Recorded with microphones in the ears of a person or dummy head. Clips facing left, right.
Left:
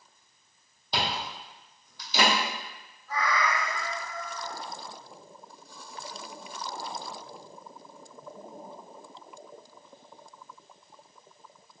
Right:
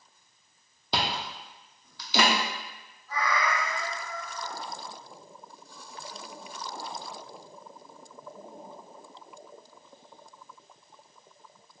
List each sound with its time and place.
0.9 s chewing: 60° right (ahead or behind), 0.7 m
3.1 s a cat meowing: 45° left (ahead or behind), 1.2 m